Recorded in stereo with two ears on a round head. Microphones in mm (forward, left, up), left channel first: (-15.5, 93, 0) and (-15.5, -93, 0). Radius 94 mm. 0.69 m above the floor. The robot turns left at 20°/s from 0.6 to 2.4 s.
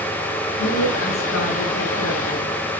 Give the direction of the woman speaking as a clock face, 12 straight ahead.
8 o'clock.